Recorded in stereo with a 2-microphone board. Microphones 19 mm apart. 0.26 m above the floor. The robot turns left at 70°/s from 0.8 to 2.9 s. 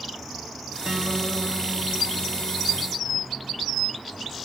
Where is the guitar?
85° right, 1.6 m; by 3.0 s 135° left, 1.6 m.